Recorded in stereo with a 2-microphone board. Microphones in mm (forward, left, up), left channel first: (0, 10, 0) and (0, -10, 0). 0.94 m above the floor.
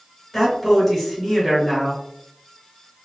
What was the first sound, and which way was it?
A man speaking, 15° left (ahead or behind).